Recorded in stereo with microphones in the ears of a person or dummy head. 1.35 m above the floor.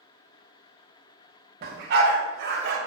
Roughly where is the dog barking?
Right.